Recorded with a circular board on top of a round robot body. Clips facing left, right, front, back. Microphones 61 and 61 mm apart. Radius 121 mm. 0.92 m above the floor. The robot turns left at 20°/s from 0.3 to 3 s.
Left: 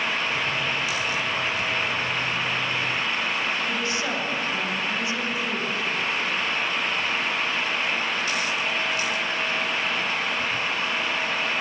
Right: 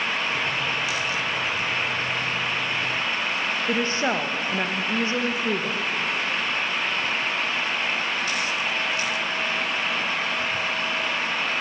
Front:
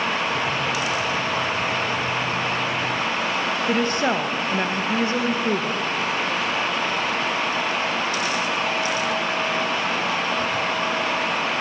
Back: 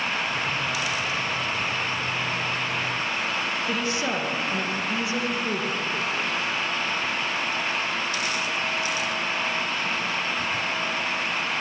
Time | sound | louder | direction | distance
3.7 | a woman speaking | right 3 dB, front 8 dB | 40° right | 1.1 m